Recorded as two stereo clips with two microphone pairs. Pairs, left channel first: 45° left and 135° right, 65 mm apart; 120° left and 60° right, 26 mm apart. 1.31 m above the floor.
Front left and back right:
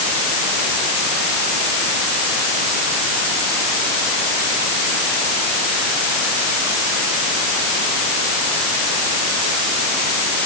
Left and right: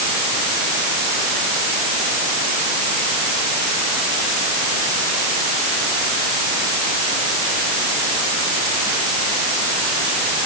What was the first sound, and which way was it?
Only background noise.